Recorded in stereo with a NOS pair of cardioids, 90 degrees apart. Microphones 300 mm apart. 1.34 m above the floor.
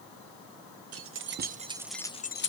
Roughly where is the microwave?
No microwave in this recording.